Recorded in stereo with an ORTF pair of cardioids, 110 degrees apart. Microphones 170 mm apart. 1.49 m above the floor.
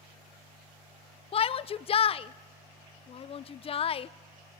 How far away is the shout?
About 0.7 m.